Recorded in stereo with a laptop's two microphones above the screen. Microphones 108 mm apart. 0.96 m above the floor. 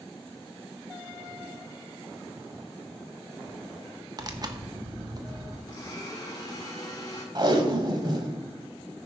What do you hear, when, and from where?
4.2 s tearing paper: 40° right (ahead or behind), 1.0 m
5.7 s a blender: 35° left (ahead or behind), 1.7 m
7.3 s tape being pulled: 45° right (ahead or behind), 1.4 m